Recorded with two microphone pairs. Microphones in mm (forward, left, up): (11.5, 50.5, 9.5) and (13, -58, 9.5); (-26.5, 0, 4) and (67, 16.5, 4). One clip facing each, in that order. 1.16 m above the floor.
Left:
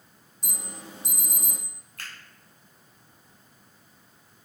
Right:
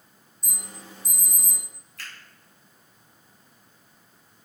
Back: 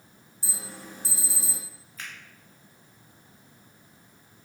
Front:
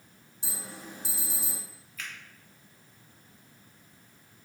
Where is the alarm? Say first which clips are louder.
Left 2 dB, back 1 dB; 75° left, 1.9 m.